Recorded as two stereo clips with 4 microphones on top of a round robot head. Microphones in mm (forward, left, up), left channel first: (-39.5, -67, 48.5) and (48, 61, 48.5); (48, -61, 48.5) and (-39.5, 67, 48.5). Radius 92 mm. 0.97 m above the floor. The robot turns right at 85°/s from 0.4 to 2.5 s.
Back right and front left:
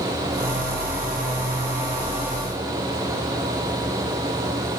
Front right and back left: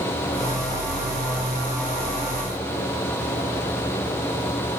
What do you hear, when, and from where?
Only background noise.